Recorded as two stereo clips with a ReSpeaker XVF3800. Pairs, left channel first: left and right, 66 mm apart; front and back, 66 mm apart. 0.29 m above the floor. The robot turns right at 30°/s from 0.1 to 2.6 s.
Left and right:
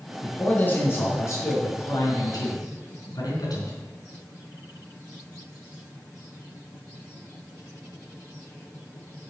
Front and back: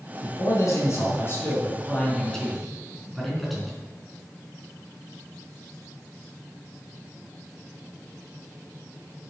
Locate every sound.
0.2 s a man speaking: 20° left, 4 m; by 3.8 s 90° left, 4 m